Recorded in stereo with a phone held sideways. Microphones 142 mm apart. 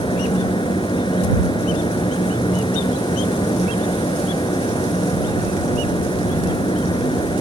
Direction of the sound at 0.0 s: 35° left (ahead or behind).